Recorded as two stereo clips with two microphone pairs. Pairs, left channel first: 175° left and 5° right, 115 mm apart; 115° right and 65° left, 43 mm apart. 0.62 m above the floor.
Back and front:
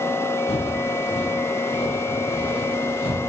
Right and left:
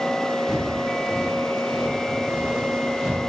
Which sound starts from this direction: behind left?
Footsteps, at 0.5 s.